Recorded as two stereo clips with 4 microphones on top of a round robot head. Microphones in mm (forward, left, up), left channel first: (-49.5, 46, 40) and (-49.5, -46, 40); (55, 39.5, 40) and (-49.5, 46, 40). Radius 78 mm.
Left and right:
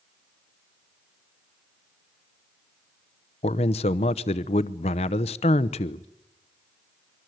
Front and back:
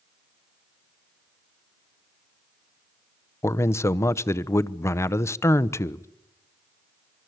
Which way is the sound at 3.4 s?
60° left.